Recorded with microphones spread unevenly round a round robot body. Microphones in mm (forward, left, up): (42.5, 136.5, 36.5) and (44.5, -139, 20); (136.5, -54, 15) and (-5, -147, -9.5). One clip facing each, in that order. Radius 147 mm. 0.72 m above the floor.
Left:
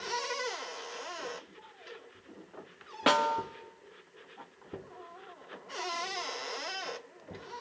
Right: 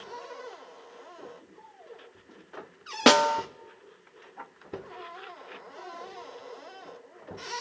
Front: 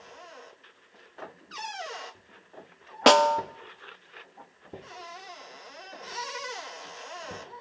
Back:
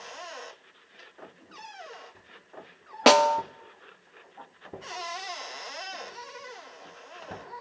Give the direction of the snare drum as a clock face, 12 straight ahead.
2 o'clock.